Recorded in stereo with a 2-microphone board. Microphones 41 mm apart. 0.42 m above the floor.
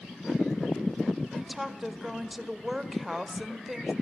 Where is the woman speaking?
10° right (ahead or behind), 1.4 m.